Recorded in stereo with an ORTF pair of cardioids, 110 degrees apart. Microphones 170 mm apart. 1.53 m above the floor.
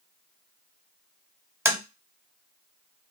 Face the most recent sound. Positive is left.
turn(degrees=-15)